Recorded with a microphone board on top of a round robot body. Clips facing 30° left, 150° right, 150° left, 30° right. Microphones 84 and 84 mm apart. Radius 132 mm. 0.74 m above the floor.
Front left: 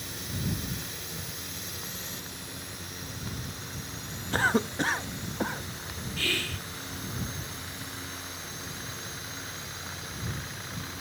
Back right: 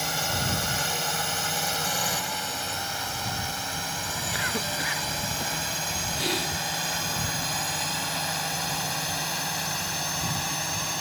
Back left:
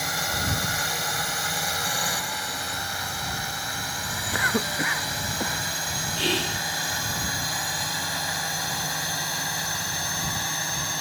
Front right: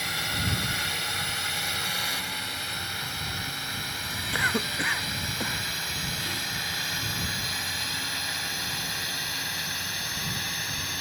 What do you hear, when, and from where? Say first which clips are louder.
0.0 s a drone: back right 8 dB, back left 3 dB; 145° right; by 11.0 s 150° right
4.3 s a cough: front left 6 dB, back left 2 dB; 75° left
6.2 s whispering: back right 3 dB, back left 7 dB; 140° left